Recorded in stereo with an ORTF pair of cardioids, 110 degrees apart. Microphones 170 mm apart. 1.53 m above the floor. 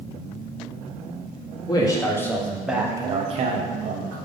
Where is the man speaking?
25° left, 1.1 m; by 4.2 s 80° right, 0.7 m.